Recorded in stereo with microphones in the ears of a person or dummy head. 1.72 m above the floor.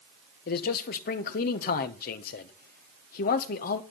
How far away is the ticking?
I don't hear ticking.